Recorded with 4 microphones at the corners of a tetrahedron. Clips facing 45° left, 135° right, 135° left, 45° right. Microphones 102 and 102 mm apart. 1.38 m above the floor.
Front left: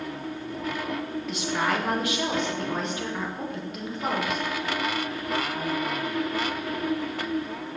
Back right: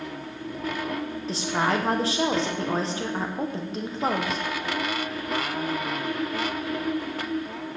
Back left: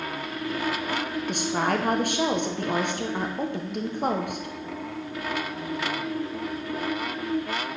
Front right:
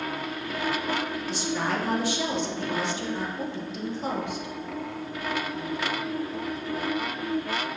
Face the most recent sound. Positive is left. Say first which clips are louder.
# back right 2 dB, back left 4 dB
turn(degrees=165)